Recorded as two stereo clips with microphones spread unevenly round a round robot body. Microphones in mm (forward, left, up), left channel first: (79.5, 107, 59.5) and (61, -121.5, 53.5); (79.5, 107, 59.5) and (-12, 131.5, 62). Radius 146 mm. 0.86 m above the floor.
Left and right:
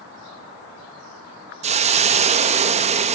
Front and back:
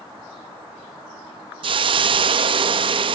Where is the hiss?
155° right, 0.6 m.